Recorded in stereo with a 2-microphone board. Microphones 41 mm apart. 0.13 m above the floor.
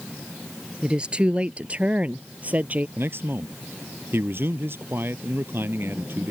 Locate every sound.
0.8 s a woman speaking: 25° right (ahead or behind); by 2.9 s 40° right (ahead or behind)
3.0 s a man speaking: 60° right (ahead or behind)